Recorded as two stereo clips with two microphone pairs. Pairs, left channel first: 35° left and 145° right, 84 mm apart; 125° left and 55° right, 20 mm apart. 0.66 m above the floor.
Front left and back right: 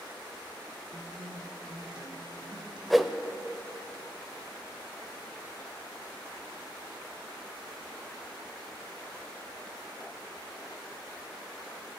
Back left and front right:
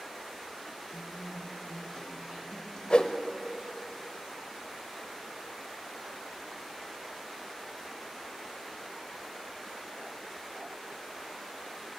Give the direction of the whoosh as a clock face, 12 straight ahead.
8 o'clock.